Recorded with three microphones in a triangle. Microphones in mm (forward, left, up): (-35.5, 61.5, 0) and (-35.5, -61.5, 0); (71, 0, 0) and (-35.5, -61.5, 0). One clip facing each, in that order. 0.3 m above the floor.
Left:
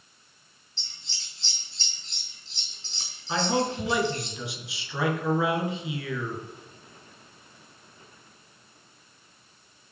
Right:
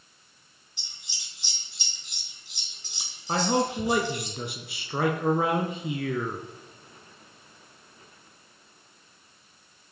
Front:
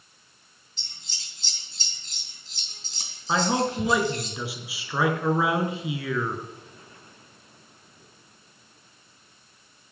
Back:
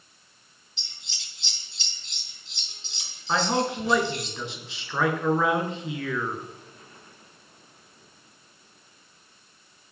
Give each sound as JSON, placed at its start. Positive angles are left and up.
{"t": 0.8, "sound": "scissors", "azimuth_deg": -15, "distance_m": 3.5}
{"t": 3.3, "sound": "a man speaking", "azimuth_deg": -50, "distance_m": 3.5}